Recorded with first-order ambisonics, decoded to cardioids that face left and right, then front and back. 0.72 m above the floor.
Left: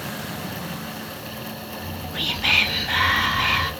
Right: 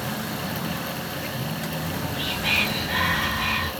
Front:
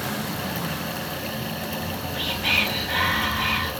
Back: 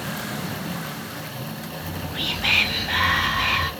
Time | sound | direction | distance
1.8 | whispering | 115° left | 0.5 m